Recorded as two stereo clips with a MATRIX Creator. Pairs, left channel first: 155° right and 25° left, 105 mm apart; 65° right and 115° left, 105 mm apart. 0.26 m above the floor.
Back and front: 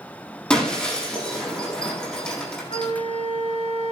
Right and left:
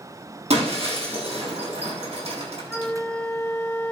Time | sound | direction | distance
0.5 | breaking glass | 120° left | 7 m
2.7 | a flute | 145° right | 1.8 m